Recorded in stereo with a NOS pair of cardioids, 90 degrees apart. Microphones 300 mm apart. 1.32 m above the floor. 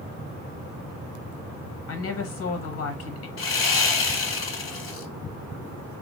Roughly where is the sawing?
Ahead left.